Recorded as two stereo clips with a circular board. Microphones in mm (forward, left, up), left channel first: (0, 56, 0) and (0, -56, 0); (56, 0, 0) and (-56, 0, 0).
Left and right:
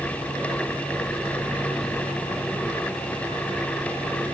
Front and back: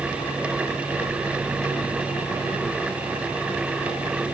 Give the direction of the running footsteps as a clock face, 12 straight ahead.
I don't hear running footsteps.